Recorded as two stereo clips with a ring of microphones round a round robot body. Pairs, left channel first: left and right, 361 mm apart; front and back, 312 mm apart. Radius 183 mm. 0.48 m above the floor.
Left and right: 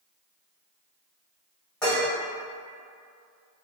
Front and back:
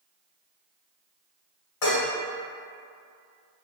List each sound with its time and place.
1.8 s dishes clattering: 5° left, 1.5 m